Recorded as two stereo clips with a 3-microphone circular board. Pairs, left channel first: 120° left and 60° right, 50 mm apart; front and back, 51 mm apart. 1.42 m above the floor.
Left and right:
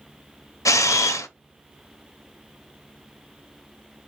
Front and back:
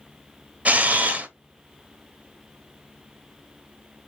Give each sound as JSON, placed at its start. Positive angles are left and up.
{"t": 0.7, "sound": "a camera shutter", "azimuth_deg": 120, "distance_m": 0.5}